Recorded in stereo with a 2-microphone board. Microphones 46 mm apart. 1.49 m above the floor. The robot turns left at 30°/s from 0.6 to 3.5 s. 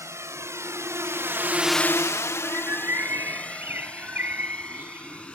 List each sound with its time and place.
0.0 s a drone: 80° right; by 5.3 s 20° left (ahead or behind)
2.4 s a bird: 100° right; by 5.3 s 130° right